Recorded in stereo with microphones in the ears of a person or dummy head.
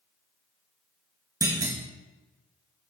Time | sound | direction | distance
1.4 | a clunk | 15° right (ahead or behind) | 1.0 m